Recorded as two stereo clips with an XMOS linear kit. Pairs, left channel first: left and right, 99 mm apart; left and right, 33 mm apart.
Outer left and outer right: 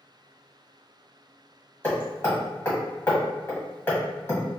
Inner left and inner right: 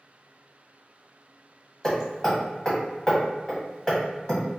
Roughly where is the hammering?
Centre.